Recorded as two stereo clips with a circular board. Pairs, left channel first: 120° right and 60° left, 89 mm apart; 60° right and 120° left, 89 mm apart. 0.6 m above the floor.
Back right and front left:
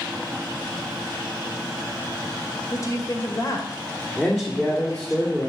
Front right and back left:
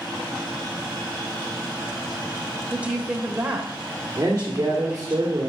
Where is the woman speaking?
165° right, 2.5 m.